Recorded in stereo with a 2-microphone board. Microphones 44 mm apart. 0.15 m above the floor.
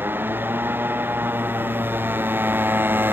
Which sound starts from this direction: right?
A motorcycle, at 0.0 s.